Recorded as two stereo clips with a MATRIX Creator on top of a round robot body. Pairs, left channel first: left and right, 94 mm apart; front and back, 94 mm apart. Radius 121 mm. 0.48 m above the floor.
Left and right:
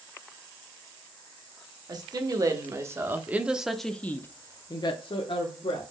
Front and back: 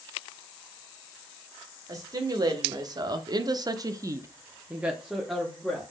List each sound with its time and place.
1.9 s a woman speaking: 135° right, 1.8 m; by 5.8 s 85° left, 1.5 m